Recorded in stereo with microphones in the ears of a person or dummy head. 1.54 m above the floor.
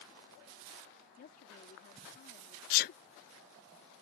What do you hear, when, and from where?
1.2 s a woman speaking: 45° left (ahead or behind)
2.7 s a sneeze: 50° left (ahead or behind)